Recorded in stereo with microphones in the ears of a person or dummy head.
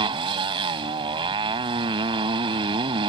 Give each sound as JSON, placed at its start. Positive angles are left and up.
{"t": 0.0, "sound": "a motorcycle", "side_deg": -20}